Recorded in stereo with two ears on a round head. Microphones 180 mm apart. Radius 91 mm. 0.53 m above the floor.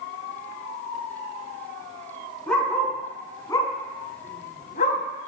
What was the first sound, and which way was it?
A dog barking, 5° left (ahead or behind).